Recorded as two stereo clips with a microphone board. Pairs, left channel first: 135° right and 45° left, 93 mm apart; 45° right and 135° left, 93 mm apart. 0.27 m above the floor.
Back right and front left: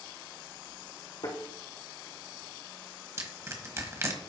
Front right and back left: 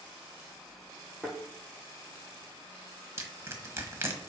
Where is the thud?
120° right, 3.5 m.